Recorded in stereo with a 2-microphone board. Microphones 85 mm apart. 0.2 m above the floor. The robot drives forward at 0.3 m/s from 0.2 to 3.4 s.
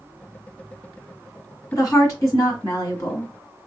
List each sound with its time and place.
1.7 s a woman speaking: 35° left (ahead or behind), 2 m; by 3.3 s 30° left (ahead or behind), 2.5 m